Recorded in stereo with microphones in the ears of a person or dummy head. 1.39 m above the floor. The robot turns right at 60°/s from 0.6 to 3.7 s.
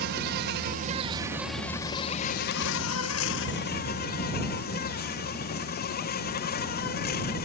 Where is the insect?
55° right; by 7.5 s 130° left.